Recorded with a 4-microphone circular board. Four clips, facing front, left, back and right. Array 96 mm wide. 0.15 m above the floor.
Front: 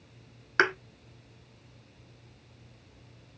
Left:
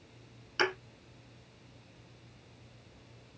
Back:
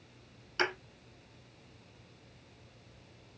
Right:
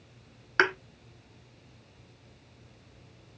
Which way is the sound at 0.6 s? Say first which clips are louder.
Right 6 dB, front 7 dB; 45° right.